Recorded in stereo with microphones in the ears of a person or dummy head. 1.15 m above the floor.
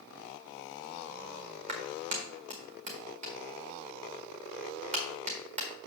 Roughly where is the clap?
Right.